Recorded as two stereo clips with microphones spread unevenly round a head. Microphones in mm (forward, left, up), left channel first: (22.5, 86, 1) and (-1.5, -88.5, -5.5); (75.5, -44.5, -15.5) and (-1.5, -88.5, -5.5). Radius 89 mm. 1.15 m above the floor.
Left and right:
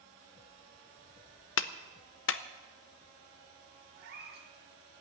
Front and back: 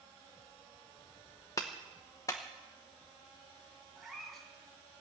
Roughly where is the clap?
Left.